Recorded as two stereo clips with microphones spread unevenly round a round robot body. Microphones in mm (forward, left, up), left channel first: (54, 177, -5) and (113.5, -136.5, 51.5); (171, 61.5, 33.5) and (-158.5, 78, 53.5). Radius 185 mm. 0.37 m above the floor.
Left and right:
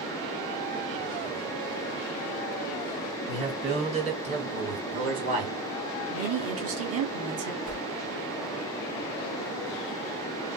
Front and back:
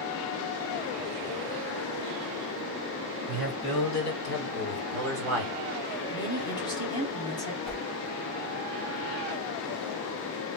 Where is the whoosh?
25° left, 2.0 m.